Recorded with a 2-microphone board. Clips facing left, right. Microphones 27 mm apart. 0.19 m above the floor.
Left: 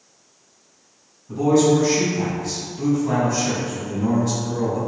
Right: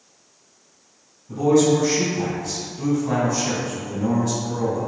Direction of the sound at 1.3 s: 10° left (ahead or behind).